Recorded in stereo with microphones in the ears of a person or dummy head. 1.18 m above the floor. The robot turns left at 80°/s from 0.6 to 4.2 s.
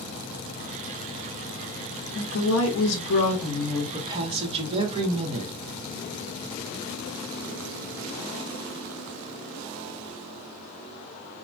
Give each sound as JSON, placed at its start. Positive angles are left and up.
{"t": 2.1, "sound": "a woman speaking", "azimuth_deg": 135, "distance_m": 1.1}